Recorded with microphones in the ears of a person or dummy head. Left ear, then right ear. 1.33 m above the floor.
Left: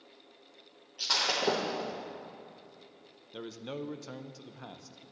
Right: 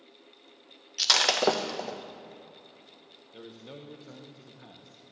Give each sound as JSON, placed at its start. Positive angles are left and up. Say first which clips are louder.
{"t": 1.0, "sound": "breaking glass", "louder": "right 6 dB", "side_deg": -45, "distance_m": 0.5}
{"t": 3.3, "sound": "a man speaking", "louder": "left 6 dB", "side_deg": 65, "distance_m": 0.7}